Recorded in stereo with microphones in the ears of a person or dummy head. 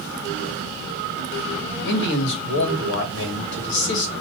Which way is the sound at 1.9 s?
70° left (ahead or behind).